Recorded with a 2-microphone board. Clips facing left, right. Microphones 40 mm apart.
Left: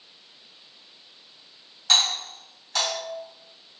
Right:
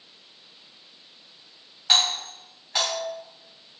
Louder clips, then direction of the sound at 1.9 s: Even; 20° right (ahead or behind).